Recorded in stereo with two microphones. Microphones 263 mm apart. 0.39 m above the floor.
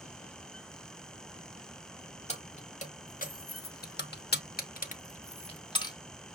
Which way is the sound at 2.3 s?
25° left (ahead or behind).